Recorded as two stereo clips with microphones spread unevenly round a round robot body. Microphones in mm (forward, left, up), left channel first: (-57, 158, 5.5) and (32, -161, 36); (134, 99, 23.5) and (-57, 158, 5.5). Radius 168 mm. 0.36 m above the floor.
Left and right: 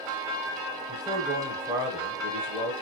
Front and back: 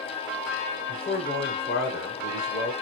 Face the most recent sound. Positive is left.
turn(degrees=10)